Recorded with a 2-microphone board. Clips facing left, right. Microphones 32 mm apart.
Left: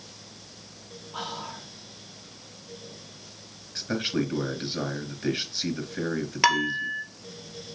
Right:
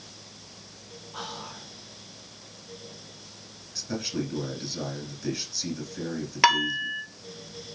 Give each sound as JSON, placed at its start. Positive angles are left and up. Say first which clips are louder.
{"t": 1.1, "sound": "whispering", "louder": "left 3 dB", "side_deg": 25, "distance_m": 3.5}
{"t": 3.8, "sound": "a man speaking", "louder": "left 4 dB", "side_deg": 45, "distance_m": 2.5}
{"t": 6.4, "sound": "dishes clattering", "louder": "right 2 dB", "side_deg": -10, "distance_m": 2.0}